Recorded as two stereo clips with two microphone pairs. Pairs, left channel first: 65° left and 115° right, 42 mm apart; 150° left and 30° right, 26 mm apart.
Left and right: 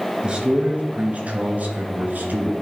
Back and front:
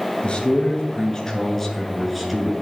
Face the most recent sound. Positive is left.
turn(degrees=-110)